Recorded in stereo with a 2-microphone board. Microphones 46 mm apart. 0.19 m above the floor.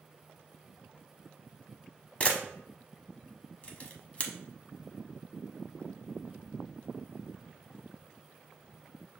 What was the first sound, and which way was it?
A camera shutter, 30° left (ahead or behind).